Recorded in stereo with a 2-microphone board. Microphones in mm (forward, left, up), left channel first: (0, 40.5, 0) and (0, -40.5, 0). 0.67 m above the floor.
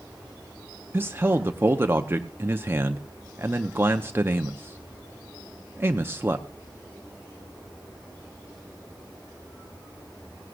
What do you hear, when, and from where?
0.9 s a man speaking: 30° right (ahead or behind), 0.7 m